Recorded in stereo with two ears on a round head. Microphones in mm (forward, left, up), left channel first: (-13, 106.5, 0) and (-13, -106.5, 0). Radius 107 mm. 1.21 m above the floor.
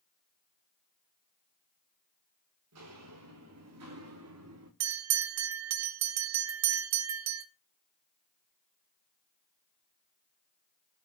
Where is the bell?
75° right (ahead or behind), 1.2 m.